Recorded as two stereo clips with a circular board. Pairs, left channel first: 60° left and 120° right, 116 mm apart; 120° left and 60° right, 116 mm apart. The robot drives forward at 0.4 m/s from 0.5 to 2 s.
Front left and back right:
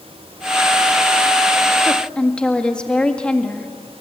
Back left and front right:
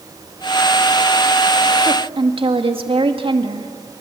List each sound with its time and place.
1.8 s a woman speaking: 20° right, 2.0 m